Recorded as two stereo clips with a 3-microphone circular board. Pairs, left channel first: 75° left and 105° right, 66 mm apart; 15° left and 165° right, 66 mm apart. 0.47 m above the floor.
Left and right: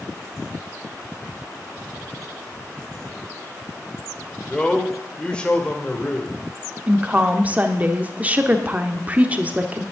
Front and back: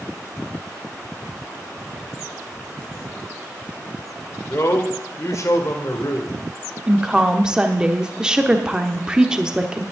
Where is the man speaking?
5° left, 1.6 m.